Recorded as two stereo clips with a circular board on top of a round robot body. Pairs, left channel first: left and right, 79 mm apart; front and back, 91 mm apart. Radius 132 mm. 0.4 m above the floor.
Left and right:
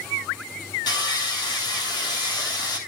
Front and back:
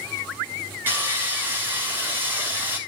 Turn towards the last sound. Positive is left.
turn(degrees=115)